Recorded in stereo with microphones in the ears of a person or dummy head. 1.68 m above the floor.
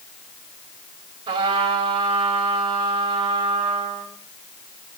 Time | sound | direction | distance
1.3 | a trumpet | 30° right (ahead or behind) | 3 m